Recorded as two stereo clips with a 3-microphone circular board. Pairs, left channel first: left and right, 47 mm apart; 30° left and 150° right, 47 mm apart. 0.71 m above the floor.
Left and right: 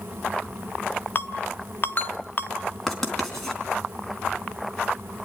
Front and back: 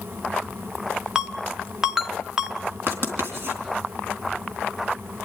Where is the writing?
175° left, 3 m.